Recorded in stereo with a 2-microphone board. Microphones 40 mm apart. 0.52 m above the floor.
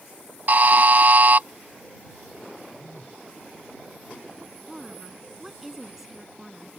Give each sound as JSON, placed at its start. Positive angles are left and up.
{"t": 0.5, "sound": "a buzzer", "side_deg": -45}
{"t": 2.8, "sound": "a phone buzzing", "side_deg": 55}
{"t": 4.7, "sound": "a woman speaking", "side_deg": -10}